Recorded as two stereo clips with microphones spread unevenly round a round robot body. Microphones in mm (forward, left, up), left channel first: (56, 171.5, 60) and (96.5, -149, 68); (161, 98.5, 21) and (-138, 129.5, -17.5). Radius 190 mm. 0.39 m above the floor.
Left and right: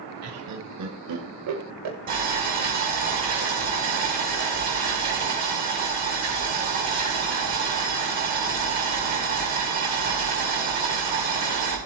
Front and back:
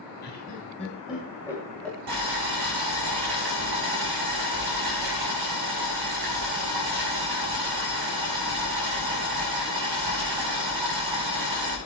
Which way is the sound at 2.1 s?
150° right.